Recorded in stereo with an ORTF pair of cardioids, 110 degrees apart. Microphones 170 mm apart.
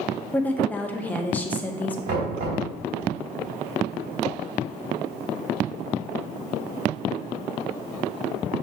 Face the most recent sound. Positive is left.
turn(degrees=-70)